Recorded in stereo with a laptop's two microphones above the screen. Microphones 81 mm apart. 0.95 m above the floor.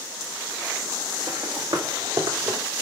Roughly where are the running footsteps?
Right.